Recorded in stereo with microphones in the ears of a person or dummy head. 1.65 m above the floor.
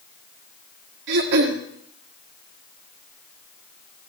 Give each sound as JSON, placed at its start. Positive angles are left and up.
{"t": 1.1, "sound": "throat clearing", "side_deg": -65, "distance_m": 1.9}